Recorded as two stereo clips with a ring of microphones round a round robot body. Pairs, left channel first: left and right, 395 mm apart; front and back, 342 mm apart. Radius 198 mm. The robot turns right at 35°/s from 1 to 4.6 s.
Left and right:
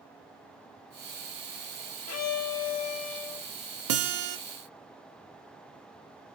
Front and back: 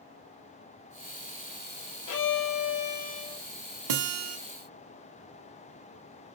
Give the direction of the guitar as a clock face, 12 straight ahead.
5 o'clock.